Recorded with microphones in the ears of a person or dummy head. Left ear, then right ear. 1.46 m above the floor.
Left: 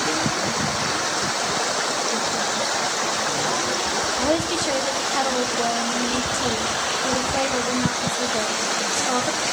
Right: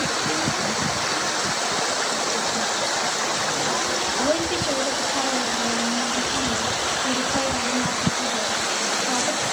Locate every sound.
4.2 s a woman speaking: 50° left (ahead or behind), 2 m